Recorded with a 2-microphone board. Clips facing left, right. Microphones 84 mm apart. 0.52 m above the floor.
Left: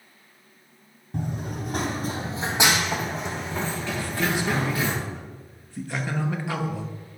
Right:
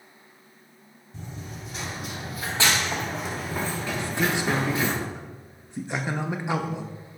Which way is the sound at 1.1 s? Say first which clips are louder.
Left 9 dB; 70° left (ahead or behind).